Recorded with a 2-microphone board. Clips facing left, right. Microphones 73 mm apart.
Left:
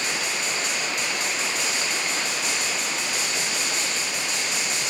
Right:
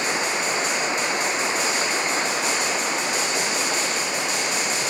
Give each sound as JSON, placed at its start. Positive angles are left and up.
{"t": 0.0, "sound": "running water", "side_deg": -25}